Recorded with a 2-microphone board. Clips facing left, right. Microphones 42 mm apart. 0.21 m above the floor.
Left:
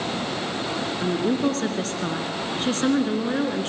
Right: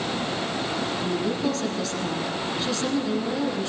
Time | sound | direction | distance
1.0 | a woman speaking | 50° left (ahead or behind) | 2.5 m